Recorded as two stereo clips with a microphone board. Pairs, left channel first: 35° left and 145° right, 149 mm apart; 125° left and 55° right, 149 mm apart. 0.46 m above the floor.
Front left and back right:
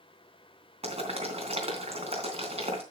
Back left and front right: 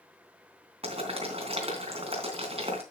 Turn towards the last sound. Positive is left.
turn(degrees=-100)